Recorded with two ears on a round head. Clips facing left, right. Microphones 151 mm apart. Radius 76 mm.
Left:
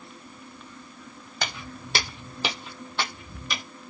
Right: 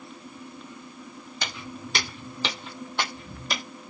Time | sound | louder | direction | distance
1.4 | footsteps | left 2 dB | 45° left (ahead or behind) | 1.0 m